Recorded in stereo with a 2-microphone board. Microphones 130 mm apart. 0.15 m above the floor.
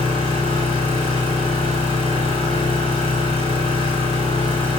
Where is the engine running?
40° left (ahead or behind), 2.5 m.